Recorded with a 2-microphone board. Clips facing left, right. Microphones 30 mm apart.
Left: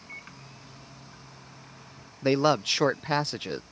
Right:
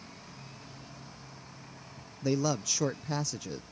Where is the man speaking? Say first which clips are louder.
Left 7 dB; 50° left (ahead or behind).